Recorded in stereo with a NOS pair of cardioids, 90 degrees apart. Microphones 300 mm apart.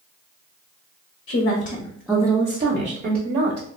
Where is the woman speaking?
50° left, 0.7 m; by 3.7 s 55° right, 1.3 m.